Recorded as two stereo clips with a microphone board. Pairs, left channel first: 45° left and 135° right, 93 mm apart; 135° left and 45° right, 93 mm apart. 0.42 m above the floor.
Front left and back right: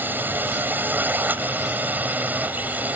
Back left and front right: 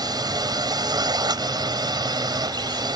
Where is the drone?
70° right; by 3.0 s 65° right.